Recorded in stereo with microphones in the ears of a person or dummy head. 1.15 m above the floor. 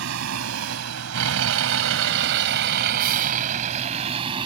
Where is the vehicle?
75° right (ahead or behind); by 4.5 s 30° right (ahead or behind).